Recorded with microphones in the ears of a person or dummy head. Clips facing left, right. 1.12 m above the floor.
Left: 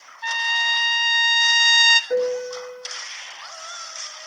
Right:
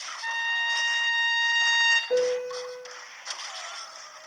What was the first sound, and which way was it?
A trumpet, 55° left (ahead or behind).